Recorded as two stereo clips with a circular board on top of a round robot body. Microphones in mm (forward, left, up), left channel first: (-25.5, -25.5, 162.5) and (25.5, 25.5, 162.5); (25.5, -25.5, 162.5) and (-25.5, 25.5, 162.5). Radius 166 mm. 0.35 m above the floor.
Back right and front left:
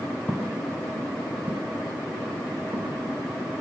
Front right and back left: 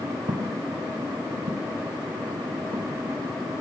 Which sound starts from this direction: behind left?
Footsteps, at 0.3 s.